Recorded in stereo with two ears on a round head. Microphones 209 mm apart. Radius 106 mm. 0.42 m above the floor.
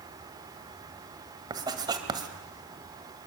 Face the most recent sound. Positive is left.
turn(degrees=-20)  # may be behind; listen again after turning